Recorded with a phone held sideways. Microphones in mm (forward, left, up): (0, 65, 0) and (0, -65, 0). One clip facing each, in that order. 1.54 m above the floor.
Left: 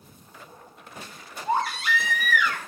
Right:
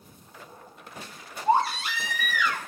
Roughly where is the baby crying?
Right.